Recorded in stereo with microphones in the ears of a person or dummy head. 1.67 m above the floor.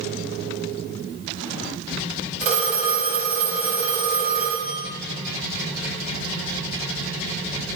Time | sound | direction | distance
2.4 | a phone ringing | 35° right (ahead or behind) | 1.0 m